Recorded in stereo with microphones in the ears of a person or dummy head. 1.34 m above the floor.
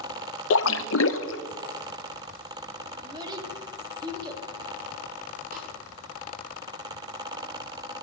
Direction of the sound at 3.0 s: 15° right (ahead or behind).